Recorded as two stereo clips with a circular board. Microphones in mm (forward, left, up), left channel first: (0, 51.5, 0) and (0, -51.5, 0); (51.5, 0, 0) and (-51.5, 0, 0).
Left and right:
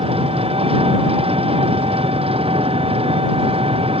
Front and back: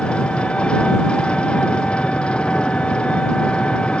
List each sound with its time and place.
0.0 s an engine running: 80° right